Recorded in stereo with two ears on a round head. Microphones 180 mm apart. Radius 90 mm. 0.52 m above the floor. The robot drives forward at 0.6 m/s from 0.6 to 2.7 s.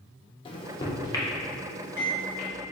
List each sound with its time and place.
0.5 s a microwave: 25° left (ahead or behind), 0.5 m; by 2.5 s 10° left (ahead or behind), 1.5 m